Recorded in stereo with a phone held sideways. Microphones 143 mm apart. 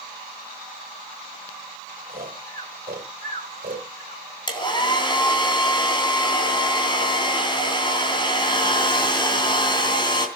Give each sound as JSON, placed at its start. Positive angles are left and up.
{"t": 2.1, "sound": "snoring", "side_deg": -85, "distance_m": 3.0}
{"t": 4.5, "sound": "a hair dryer", "side_deg": 30, "distance_m": 3.0}